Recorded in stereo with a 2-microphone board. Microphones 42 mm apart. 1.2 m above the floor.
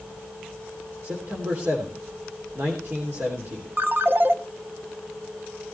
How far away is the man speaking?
About 3 m.